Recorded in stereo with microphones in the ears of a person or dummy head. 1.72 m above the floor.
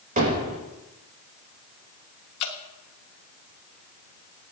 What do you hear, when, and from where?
0.2 s hammering: 40° right (ahead or behind), 8 m
2.4 s dripping: 50° left (ahead or behind), 1.5 m